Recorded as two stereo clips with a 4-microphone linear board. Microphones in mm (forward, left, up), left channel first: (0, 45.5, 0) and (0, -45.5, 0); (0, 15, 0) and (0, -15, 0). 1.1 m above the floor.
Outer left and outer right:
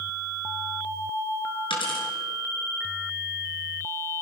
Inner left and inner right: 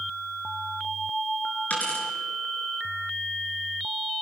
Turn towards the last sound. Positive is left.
turn(degrees=75)  # may be behind; listen again after turning